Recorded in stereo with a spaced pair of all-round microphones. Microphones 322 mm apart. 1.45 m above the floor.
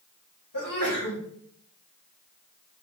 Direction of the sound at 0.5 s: 80° left.